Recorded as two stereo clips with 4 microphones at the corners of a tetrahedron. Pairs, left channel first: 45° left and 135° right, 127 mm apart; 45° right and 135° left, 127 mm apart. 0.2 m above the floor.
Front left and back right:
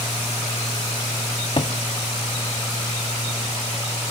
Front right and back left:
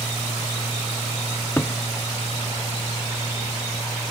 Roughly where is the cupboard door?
Ahead.